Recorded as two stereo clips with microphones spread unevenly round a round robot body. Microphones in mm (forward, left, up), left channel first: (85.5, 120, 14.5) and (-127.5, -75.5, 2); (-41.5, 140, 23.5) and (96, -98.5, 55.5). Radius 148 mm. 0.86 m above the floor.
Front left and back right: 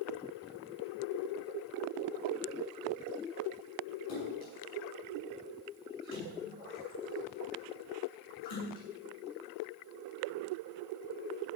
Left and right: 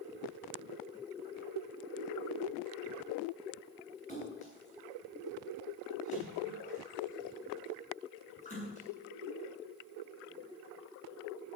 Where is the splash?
55° left, 8.5 m.